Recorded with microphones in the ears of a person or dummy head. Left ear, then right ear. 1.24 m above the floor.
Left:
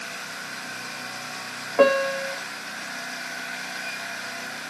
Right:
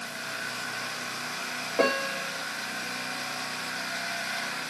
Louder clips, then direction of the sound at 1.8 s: Left 7 dB; 55° left (ahead or behind).